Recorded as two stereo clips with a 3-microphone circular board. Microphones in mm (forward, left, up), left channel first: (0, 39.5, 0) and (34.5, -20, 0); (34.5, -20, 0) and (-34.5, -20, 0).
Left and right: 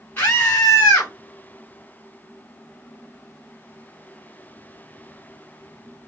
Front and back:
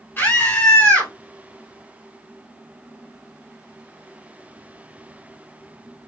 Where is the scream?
60° left, 2.5 m.